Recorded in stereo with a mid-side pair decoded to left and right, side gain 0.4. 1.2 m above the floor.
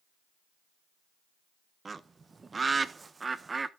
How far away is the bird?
About 0.9 m.